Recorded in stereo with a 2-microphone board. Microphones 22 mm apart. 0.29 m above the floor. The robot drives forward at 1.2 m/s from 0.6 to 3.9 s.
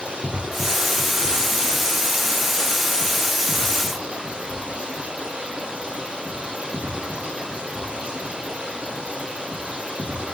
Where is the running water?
65° right (ahead or behind), 9.5 m; by 10.3 s 85° right, 8.5 m.